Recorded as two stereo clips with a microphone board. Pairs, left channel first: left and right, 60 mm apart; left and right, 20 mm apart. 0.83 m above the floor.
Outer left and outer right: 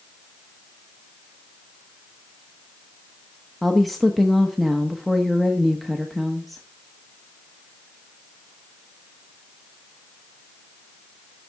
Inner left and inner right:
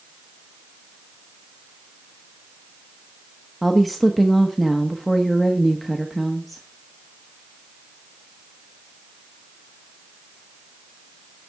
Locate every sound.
3.6 s a woman speaking: centre (ahead or behind), 1.0 m